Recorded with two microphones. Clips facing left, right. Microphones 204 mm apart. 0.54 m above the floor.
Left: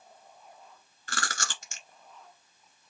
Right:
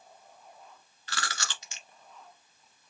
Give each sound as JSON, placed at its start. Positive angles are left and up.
{"t": 1.1, "sound": "chewing", "side_deg": 50, "distance_m": 1.3}